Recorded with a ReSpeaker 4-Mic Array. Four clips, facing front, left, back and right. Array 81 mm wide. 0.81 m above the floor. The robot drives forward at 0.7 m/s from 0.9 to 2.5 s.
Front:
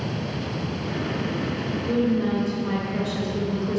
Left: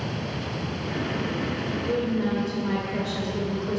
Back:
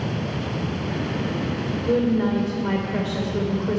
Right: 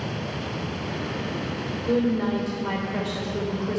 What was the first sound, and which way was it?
A woman speaking, 165° right.